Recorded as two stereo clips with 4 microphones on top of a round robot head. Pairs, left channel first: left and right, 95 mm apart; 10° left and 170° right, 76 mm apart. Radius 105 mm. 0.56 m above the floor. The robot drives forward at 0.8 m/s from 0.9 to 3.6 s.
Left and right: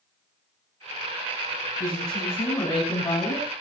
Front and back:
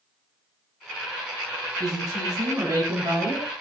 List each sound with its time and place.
1.8 s a woman speaking: 145° left, 6 m; by 3.5 s 150° left, 7.5 m